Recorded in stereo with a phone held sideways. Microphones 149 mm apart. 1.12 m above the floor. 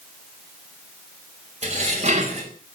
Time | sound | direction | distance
1.6 | dishes clattering | 50° right (ahead or behind) | 4.5 m